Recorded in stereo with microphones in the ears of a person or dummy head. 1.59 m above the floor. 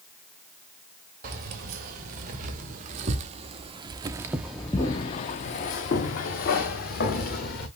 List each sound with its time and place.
1.2 s keys jangling: 45° right (ahead or behind), 2.0 m; by 7.7 s 50° left (ahead or behind), 1.7 m